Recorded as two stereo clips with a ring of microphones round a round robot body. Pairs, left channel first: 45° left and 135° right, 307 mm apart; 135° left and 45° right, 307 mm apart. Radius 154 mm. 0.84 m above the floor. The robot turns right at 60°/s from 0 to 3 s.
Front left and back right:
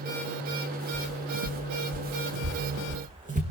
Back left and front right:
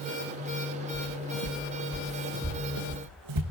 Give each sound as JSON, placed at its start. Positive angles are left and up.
{"t": 0.9, "sound": "footsteps", "azimuth_deg": 145, "distance_m": 3.0}